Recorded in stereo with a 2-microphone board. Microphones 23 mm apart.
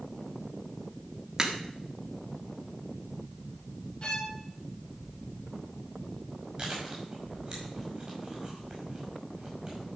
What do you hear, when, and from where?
1.4 s a crack: 25° right (ahead or behind), 1.6 m
4.0 s a violin: 40° left (ahead or behind), 1.4 m
6.6 s chewing: 30° right (ahead or behind), 5.5 m